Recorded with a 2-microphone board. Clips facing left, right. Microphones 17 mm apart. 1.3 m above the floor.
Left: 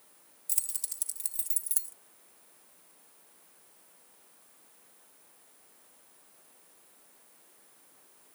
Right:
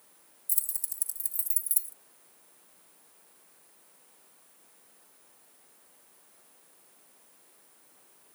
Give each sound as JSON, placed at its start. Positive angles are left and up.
{"t": 0.5, "sound": "keys jangling", "side_deg": 30}